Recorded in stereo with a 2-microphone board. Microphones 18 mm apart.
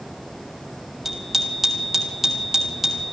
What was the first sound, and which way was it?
A bicycle bell, 10° right (ahead or behind).